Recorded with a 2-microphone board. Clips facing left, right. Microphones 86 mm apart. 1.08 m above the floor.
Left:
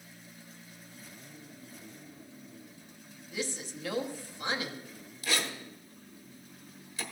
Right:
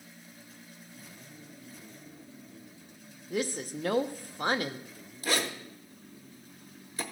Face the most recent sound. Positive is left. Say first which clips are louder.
# right 3 dB
turn(degrees=-40)  # may be behind; listen again after turning